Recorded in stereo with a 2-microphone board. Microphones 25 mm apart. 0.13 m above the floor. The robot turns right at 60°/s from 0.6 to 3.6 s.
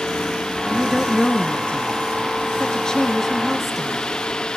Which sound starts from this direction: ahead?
A woman speaking, at 0.7 s.